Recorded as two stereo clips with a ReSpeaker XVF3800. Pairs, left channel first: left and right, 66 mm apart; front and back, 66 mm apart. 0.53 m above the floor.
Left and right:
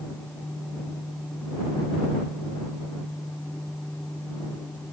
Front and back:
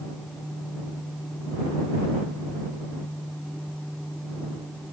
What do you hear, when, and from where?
Only background noise.